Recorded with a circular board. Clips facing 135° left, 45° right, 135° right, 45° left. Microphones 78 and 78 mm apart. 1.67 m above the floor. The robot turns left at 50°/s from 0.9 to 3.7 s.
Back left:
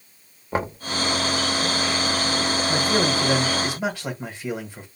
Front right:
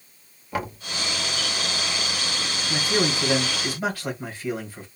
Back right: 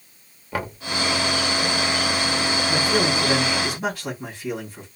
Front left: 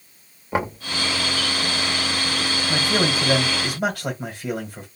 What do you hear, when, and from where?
0.5 s knocking: 100° left, 0.6 m
2.7 s a man speaking: 115° left, 1.7 m; by 4.9 s 65° left, 1.7 m